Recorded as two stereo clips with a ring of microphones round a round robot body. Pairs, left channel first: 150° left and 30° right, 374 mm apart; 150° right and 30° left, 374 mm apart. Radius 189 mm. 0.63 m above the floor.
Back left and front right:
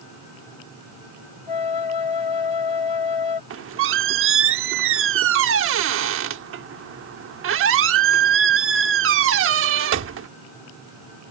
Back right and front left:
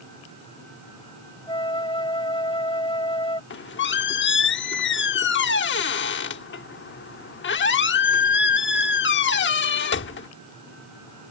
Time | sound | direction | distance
1.5 | a flute | 130° left | ?
3.5 | a squeak | 90° right | ?